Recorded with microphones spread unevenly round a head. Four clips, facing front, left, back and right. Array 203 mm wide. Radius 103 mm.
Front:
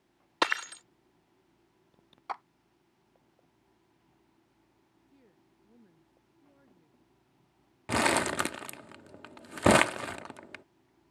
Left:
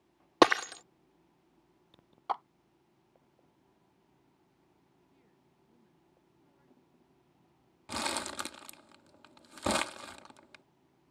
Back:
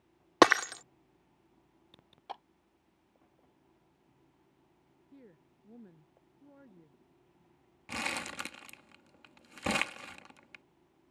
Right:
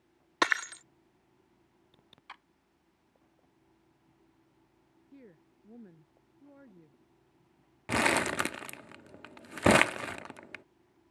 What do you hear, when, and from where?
0.4 s breaking glass: 135° left
2.3 s a clap: 80° left
5.1 s a woman speaking: 115° right
7.9 s crumpling: 35° right